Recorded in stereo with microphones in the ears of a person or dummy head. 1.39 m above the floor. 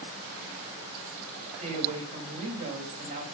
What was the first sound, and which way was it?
A woman speaking, 35° right (ahead or behind).